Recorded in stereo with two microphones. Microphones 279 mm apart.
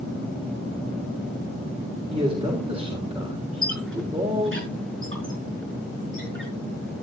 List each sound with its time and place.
2.1 s a man speaking: 20° right (ahead or behind), 3.5 m
3.6 s a squeak: 45° right (ahead or behind), 5.5 m